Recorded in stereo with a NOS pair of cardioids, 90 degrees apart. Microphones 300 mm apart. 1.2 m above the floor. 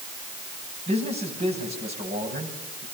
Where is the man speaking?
30° right, 9 m.